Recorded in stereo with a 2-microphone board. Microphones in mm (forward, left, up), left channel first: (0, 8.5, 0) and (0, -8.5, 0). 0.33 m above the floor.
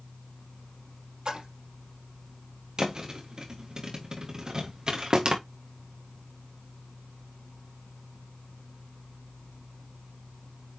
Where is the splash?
70° right (ahead or behind), 5 m.